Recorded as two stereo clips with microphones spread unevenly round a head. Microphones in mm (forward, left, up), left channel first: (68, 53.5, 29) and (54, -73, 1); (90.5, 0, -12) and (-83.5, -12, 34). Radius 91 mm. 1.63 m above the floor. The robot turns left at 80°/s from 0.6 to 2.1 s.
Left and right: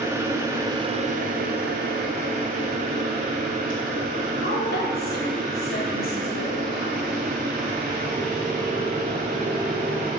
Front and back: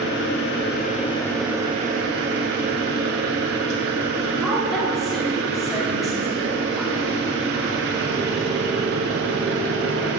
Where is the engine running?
25° right, 3 m; by 10.2 s 145° right, 3 m.